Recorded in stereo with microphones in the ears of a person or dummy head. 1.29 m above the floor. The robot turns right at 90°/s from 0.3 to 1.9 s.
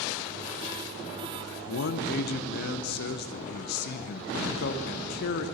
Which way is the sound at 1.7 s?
80° left.